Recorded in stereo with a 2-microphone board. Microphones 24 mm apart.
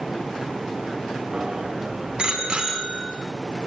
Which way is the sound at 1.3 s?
40° right (ahead or behind).